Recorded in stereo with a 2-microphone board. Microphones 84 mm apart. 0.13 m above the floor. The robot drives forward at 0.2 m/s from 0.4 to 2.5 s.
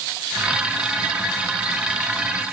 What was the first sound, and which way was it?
Only background noise.